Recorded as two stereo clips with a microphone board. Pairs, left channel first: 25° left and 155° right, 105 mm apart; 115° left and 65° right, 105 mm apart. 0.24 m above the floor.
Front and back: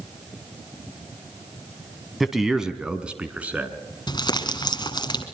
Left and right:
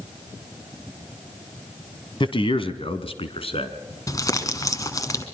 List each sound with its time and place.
2.2 s a man speaking: 115° left, 1.6 m; by 3.8 s 130° left, 2.5 m
4.1 s crumpling: 60° left, 2.0 m